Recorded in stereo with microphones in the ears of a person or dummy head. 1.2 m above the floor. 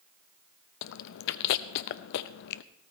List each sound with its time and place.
0.8 s chewing: 70° left (ahead or behind), 0.6 m